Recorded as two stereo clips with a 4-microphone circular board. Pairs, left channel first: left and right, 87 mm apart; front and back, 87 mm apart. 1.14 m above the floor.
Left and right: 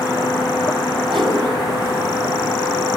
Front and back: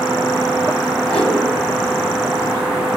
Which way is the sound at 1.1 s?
75° right.